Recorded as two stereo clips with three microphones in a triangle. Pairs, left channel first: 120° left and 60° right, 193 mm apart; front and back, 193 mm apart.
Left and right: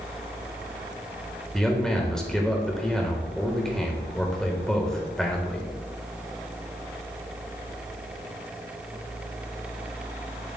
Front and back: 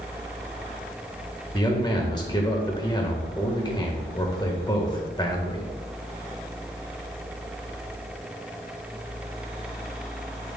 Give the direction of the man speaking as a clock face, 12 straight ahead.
11 o'clock.